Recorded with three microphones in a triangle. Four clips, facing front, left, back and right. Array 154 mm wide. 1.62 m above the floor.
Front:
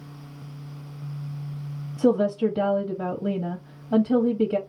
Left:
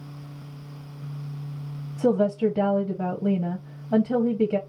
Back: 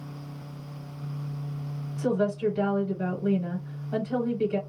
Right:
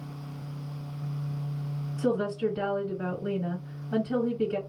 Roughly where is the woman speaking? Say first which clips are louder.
Left 6 dB, front 5 dB; ahead left.